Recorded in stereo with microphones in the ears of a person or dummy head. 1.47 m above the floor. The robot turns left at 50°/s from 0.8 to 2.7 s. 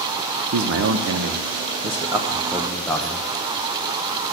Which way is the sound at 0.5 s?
95° right.